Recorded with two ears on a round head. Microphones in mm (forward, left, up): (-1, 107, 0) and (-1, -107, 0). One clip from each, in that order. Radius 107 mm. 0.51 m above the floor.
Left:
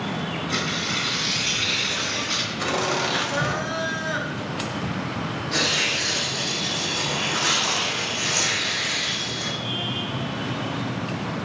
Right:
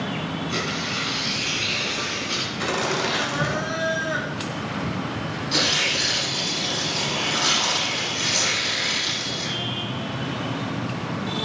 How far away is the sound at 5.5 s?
About 6.5 m.